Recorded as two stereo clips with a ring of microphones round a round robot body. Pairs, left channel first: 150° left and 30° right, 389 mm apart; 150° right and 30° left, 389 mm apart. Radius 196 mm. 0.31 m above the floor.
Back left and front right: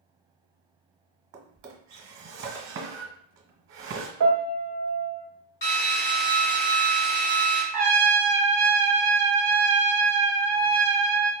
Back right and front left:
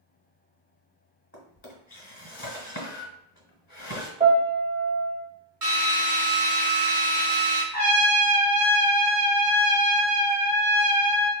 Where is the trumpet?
85° right, 1.3 m.